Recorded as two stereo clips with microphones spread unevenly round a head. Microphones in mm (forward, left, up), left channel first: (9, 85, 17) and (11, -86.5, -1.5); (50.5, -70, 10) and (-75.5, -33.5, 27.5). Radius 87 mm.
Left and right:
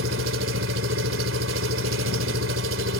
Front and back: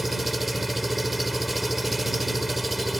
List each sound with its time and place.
0.0 s an engine running: 110° right